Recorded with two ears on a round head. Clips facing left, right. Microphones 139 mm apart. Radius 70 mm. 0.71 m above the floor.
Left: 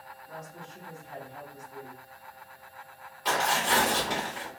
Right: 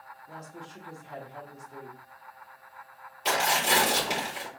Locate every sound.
0.3 s a woman speaking: 20° right (ahead or behind), 1.1 m
3.2 s tearing paper: 30° right (ahead or behind), 2.5 m